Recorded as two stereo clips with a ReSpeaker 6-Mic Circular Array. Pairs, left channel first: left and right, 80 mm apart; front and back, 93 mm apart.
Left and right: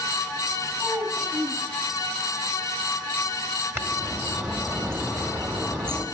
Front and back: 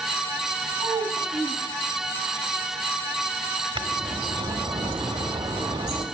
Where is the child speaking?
140° right, 4.5 m.